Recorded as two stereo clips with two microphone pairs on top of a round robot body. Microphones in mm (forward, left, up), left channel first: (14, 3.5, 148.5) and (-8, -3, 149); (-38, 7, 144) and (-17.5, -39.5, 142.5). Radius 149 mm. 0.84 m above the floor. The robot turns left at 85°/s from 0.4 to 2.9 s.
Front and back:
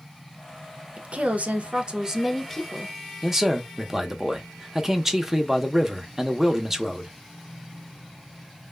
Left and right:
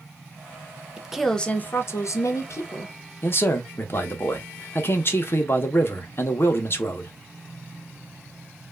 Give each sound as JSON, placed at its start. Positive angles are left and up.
{"t": 1.0, "sound": "a woman speaking", "azimuth_deg": -135, "distance_m": 0.7}
{"t": 3.2, "sound": "a man speaking", "azimuth_deg": 130, "distance_m": 0.9}